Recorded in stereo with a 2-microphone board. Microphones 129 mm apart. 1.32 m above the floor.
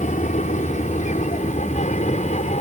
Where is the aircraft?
70° left (ahead or behind); by 2.6 s 65° left (ahead or behind).